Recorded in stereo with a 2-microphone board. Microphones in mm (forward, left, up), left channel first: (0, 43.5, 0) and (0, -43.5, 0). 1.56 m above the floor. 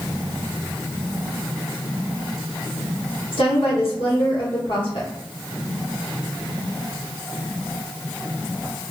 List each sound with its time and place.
3.3 s a woman speaking: 75° left (ahead or behind), 1.4 m